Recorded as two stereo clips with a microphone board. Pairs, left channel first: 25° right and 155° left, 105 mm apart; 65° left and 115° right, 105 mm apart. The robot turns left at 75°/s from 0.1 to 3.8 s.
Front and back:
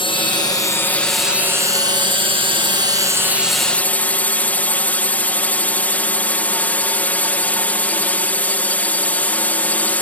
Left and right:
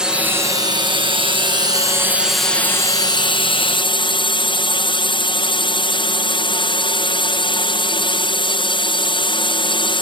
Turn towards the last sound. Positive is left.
turn(degrees=50)